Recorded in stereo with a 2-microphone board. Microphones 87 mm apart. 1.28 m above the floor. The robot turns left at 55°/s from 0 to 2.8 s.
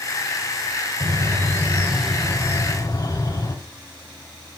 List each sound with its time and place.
1.0 s a bird: 115° right, 3 m; by 3.5 s 145° left, 3 m